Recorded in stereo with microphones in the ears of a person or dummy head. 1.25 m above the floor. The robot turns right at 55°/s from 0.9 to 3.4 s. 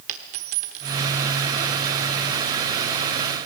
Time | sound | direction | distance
0.1 | a dropped coin | 40° right (ahead or behind) | 1.2 m